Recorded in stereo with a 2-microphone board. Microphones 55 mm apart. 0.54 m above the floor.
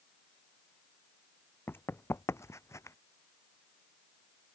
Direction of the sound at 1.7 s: 50° left (ahead or behind).